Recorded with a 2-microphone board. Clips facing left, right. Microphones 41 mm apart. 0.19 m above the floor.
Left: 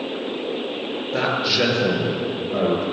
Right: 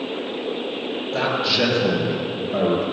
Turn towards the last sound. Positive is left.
turn(degrees=5)  # may be behind; listen again after turning